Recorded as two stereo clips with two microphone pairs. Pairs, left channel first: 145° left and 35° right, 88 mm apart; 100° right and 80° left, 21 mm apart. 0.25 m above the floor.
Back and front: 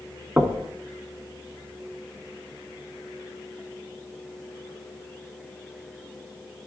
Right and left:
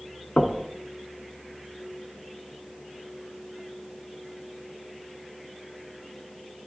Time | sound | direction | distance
0.4 | knocking | 100° right | 1.6 m